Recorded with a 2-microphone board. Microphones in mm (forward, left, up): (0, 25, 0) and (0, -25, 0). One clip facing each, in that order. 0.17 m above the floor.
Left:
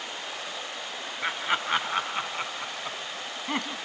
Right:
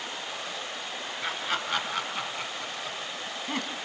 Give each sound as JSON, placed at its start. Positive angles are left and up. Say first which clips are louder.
{"t": 1.2, "sound": "laughter", "louder": "left 4 dB", "side_deg": 20, "distance_m": 2.0}